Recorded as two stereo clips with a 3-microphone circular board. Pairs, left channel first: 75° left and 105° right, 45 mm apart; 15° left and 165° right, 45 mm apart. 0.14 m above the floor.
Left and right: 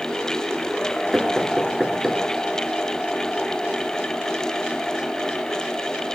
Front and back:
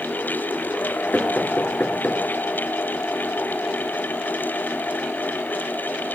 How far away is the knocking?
About 1.4 m.